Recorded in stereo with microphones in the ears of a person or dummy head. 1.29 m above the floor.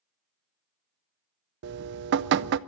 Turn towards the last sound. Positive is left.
turn(degrees=-55)  # may be behind; listen again after turning